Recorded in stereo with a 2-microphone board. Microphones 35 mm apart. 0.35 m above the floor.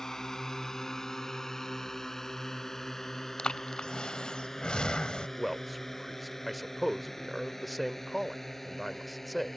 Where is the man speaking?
Centre (ahead or behind).